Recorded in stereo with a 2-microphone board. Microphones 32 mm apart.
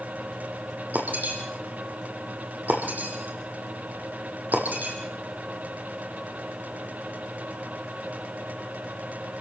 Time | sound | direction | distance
0.9 | breaking glass | 60° right (ahead or behind) | 4.5 m